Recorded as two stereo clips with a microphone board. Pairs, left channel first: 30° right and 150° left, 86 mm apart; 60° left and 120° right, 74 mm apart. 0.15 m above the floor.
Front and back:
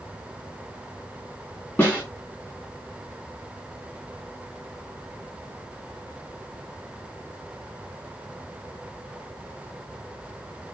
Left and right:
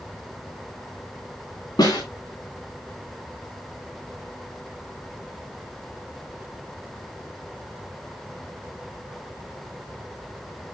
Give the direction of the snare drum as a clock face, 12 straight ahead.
11 o'clock.